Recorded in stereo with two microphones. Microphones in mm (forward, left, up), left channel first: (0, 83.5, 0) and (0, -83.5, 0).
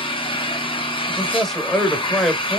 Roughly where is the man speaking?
Centre.